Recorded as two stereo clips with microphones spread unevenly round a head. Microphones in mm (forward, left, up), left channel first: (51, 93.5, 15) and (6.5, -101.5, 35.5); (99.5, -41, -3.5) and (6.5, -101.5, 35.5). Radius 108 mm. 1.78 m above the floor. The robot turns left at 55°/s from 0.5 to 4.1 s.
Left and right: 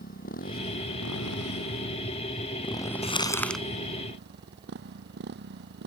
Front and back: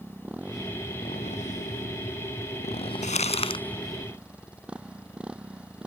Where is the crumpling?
15° left; by 3.6 s 15° right.